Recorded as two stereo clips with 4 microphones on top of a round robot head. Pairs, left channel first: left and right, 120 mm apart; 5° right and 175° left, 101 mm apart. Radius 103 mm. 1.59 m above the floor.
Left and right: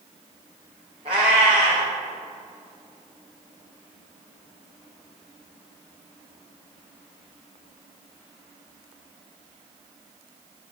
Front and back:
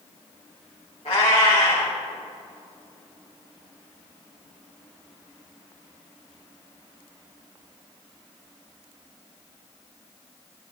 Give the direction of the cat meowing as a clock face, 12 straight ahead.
1 o'clock.